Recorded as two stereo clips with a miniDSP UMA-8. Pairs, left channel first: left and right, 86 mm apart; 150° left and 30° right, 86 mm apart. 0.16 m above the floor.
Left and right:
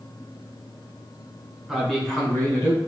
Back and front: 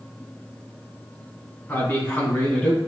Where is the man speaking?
170° right, 1.5 m; by 2.8 s 90° left, 1.4 m.